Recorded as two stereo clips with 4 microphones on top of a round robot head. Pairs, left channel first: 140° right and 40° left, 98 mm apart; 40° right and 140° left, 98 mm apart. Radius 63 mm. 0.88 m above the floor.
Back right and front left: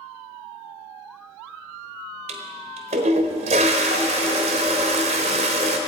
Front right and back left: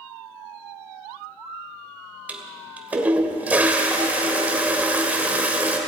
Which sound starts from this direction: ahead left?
A toilet flushing, at 2.3 s.